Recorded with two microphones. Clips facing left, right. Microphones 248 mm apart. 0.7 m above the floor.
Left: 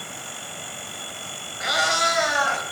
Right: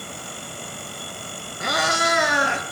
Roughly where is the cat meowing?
Right.